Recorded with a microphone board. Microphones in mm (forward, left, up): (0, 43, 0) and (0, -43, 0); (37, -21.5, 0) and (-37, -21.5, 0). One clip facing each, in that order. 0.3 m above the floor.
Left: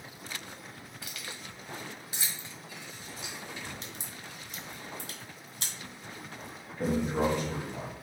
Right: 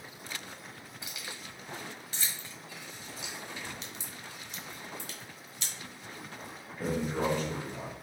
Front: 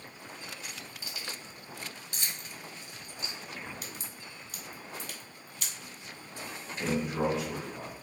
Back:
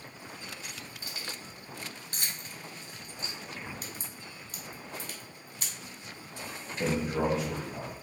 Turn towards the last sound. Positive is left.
turn(degrees=150)